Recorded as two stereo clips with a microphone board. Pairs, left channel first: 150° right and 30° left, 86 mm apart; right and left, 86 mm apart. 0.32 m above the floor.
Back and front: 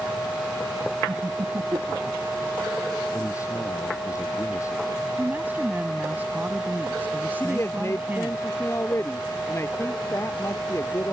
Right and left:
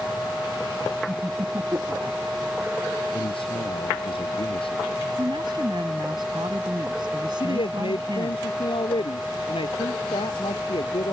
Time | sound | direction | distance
1.1 | laughter | 65° left | ?
3.1 | a man speaking | 95° right | ?
5.2 | a woman speaking | 100° left | ?
7.4 | a man speaking | 90° right | ?